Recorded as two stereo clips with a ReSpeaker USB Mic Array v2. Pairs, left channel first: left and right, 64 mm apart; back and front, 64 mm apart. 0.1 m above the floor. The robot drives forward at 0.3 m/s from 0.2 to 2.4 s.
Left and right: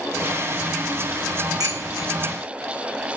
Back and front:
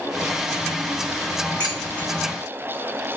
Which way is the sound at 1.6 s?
110° right.